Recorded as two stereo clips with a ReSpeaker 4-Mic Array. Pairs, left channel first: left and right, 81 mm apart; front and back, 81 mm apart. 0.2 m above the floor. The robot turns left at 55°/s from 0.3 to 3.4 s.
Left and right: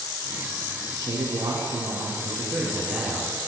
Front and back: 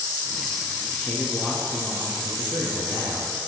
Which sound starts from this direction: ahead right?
A man speaking, at 0.9 s.